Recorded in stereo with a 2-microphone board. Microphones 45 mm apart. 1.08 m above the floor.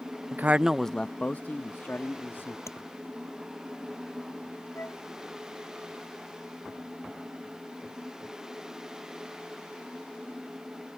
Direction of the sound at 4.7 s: 65° left (ahead or behind).